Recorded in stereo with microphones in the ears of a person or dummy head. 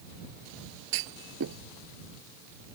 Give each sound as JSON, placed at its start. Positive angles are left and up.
{"t": 0.9, "sound": "a clunk", "side_deg": -70}